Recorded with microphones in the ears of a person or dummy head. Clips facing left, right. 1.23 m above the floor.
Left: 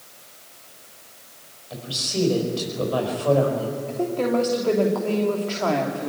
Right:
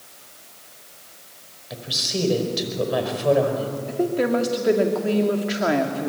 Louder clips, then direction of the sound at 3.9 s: Right 2 dB; 15° right (ahead or behind).